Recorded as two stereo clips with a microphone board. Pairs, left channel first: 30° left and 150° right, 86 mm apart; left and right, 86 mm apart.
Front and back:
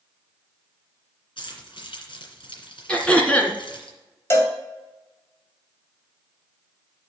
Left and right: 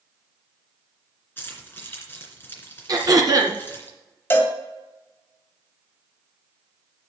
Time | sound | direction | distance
1.4 | keys jangling | 25° left | 2.5 m
2.9 | throat clearing | 45° right | 1.7 m
4.3 | a cowbell | 50° left | 1.7 m